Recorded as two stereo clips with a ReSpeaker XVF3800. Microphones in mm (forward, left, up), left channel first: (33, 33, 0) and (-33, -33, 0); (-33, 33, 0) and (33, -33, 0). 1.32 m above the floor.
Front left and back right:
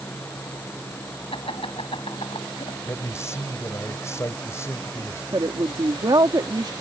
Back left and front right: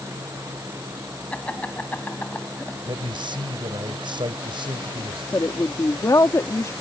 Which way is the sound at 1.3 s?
60° left.